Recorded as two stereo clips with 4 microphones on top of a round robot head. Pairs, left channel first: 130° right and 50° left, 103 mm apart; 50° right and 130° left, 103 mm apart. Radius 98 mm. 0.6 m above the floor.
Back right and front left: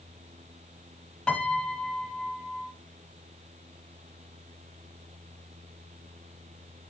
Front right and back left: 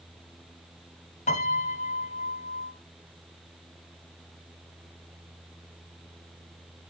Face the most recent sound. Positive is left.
turn(degrees=-50)